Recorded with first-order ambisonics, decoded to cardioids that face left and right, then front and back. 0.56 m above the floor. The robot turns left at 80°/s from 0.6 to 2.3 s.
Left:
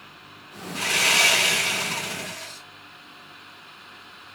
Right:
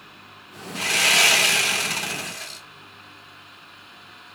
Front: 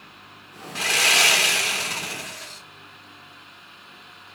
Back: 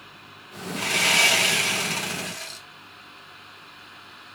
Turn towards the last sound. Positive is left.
turn(degrees=-130)